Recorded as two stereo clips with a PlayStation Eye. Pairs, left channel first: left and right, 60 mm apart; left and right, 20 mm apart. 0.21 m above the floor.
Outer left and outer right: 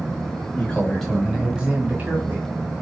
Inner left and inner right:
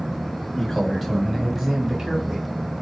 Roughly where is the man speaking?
Left.